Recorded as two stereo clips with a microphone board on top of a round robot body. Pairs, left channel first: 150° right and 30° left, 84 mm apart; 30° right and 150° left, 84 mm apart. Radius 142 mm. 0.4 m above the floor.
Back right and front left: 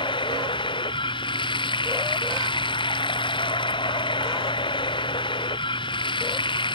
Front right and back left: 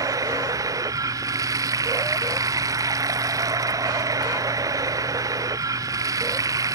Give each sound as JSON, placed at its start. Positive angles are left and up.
{"t": 0.0, "sound": "running water", "azimuth_deg": -165}